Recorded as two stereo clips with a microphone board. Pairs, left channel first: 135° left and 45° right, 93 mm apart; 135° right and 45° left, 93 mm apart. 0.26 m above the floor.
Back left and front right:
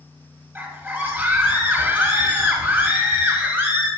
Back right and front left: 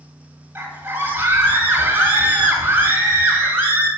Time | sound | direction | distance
0.6 | a scream | straight ahead | 1.7 m